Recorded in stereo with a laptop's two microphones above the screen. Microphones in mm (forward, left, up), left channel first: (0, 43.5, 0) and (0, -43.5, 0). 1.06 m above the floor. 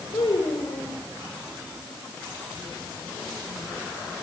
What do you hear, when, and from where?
0.1 s a child speaking: 65° left (ahead or behind), 2.5 m